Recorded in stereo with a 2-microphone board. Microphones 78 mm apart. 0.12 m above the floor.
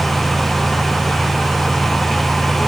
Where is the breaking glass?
I don't hear breaking glass.